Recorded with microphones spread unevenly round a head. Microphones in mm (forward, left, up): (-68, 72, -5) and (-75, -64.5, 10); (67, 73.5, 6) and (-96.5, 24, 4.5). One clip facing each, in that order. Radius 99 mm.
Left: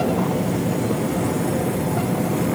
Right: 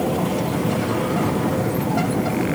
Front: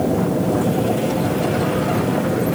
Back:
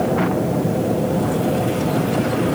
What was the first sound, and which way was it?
Only background noise.